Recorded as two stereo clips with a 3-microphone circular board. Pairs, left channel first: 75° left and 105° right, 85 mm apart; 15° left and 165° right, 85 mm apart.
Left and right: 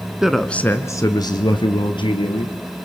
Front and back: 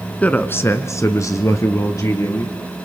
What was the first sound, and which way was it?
A man speaking, 35° right.